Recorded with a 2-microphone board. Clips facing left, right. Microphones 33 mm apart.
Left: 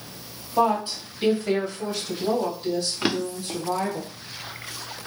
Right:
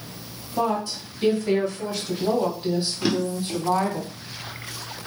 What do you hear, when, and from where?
0.6 s a woman speaking: 40° left (ahead or behind), 1.7 m; by 4.0 s 45° right (ahead or behind), 2 m
3.0 s a drawer: 35° left (ahead or behind), 0.7 m